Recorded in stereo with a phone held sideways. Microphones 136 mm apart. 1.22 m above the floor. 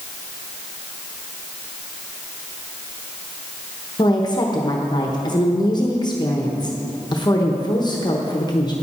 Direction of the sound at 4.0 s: 30° left (ahead or behind).